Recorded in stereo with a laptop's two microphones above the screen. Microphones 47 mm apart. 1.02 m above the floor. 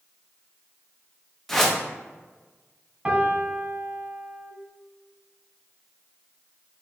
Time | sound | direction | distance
1.5 | a whoosh | 5° left (ahead or behind) | 0.6 m
3.0 | a piano | 20° right (ahead or behind) | 1.2 m